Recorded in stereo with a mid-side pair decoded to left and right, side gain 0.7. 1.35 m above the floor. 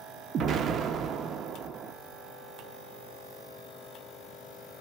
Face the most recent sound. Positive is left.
turn(degrees=-40)